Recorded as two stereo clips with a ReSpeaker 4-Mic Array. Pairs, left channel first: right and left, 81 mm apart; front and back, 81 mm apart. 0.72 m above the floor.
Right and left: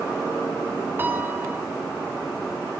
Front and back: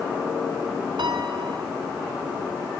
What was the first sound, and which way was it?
A piano, 155° left.